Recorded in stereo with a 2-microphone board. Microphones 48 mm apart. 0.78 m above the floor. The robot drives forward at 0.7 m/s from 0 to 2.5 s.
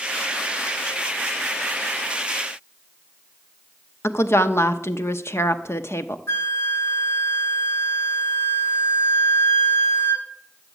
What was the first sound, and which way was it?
A woman speaking, 65° left (ahead or behind).